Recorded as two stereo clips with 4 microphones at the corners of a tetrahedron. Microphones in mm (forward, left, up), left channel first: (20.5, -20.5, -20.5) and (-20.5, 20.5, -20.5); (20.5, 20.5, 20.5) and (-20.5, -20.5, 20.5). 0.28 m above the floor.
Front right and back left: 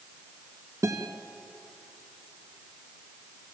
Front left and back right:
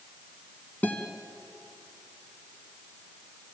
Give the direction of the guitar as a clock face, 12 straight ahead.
8 o'clock.